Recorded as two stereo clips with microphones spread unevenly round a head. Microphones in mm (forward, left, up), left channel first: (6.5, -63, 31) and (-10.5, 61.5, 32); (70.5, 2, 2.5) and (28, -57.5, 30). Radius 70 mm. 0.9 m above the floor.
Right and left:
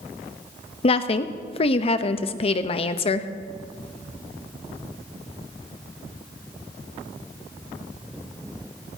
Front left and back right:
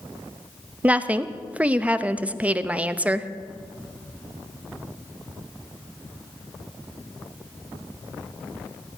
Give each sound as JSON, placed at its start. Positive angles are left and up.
{"t": 0.8, "sound": "a woman speaking", "azimuth_deg": -45, "distance_m": 0.8}